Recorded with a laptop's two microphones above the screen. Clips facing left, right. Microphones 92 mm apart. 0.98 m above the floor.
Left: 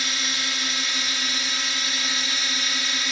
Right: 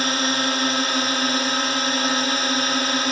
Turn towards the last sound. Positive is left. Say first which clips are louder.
# right 9 dB
turn(degrees=-50)  # may be behind; listen again after turning